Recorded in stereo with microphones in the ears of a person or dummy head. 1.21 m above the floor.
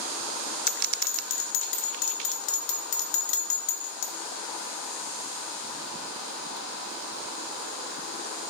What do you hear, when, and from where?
0.7 s a bell: 60° left (ahead or behind), 0.8 m